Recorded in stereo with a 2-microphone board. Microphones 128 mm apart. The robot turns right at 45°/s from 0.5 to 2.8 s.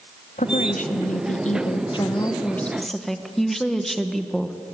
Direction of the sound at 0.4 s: 75° left.